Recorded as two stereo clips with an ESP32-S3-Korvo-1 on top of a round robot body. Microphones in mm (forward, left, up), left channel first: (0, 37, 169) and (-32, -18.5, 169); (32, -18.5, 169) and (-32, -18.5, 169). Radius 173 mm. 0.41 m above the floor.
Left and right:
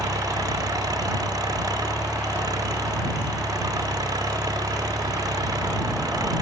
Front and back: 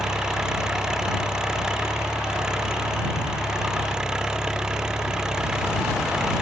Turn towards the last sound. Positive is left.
turn(degrees=-100)